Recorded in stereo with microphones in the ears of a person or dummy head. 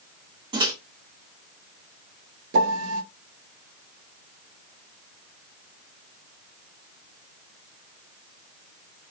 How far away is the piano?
About 0.7 m.